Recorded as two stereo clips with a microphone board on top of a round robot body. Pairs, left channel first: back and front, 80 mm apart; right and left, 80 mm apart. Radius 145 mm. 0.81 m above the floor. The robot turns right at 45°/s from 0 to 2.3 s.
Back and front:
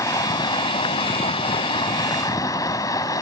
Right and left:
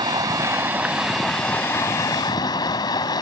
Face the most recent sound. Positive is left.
turn(degrees=-130)